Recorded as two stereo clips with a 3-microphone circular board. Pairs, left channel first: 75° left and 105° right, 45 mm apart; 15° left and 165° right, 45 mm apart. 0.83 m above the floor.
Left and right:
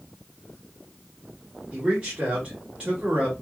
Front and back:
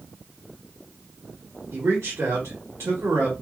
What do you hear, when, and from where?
1.7 s a man speaking: 170° right, 1.6 m